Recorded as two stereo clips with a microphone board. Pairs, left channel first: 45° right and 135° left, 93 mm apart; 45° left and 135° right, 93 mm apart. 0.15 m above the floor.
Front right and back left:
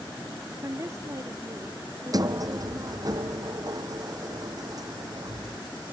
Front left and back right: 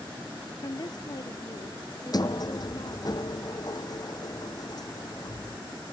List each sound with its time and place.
0.6 s a woman speaking: 80° left; by 3.1 s 85° left
2.1 s a sliding door: 90° left